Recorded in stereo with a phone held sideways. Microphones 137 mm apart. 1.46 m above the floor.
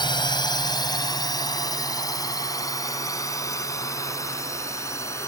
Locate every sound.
0.0 s a drone: 35° left (ahead or behind); by 5.3 s 20° left (ahead or behind)